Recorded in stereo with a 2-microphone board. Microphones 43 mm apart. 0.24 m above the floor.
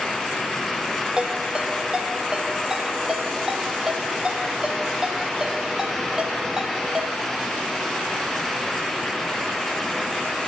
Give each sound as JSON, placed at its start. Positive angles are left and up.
{"t": 1.2, "sound": "a ringtone", "side_deg": -15, "distance_m": 5.5}